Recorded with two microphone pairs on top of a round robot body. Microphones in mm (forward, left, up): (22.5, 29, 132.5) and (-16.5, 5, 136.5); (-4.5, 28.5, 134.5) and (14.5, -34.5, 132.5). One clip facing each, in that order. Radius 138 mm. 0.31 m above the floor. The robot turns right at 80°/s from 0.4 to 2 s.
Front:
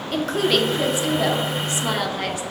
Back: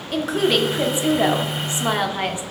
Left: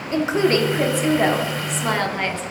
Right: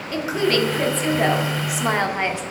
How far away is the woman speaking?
About 1.2 m.